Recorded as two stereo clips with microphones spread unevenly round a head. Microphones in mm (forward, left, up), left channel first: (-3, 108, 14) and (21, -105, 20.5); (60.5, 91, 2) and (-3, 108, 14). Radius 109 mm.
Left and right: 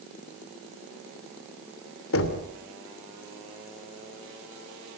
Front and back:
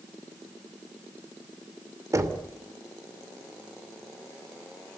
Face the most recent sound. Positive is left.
turn(degrees=130)